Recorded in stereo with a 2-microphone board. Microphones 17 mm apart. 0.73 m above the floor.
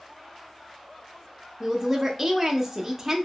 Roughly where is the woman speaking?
Centre.